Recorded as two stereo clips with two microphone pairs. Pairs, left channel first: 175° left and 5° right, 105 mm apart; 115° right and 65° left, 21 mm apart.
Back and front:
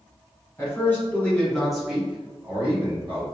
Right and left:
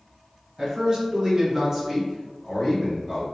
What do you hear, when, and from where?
0.6 s a man speaking: 115° left, 1.3 m; by 3.2 s 45° right, 1.2 m